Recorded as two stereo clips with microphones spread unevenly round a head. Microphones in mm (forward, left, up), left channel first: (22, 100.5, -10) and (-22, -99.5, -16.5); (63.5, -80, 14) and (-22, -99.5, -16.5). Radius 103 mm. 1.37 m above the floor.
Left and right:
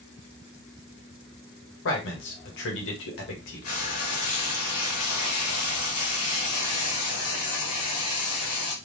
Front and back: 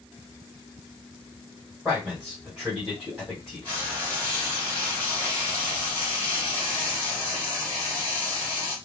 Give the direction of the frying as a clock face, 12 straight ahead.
9 o'clock.